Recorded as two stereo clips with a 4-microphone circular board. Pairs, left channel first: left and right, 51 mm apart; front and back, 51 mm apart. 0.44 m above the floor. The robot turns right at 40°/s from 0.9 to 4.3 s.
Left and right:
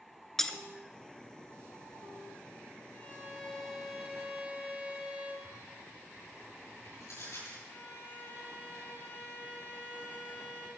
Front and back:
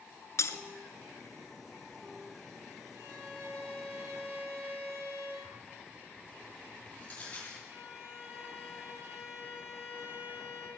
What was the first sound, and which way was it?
Breaking glass, 5° left.